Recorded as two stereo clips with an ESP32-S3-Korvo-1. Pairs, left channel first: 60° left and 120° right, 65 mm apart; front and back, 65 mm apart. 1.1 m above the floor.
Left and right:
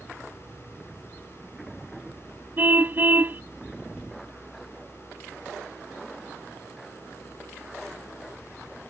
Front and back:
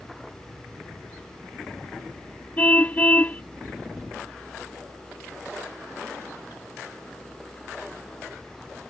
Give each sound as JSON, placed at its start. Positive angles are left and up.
{"t": 2.6, "sound": "a car horn", "azimuth_deg": -65}